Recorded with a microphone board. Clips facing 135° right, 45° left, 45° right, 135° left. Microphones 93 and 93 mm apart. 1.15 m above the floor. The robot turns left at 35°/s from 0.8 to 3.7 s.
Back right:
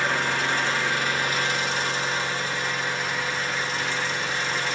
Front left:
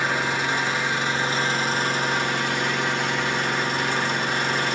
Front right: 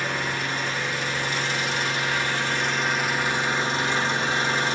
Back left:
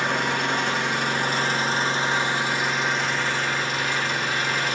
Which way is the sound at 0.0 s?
115° left.